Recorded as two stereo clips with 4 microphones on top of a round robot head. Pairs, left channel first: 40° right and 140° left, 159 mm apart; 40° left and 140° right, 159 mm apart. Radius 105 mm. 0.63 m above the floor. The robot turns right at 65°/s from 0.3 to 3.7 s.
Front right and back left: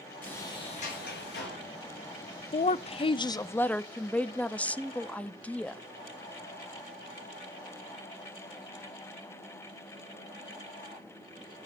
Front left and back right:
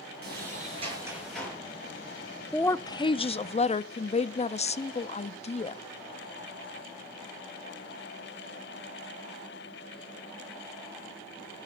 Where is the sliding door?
115° right, 7.5 m; by 1.6 s 35° right, 7.5 m.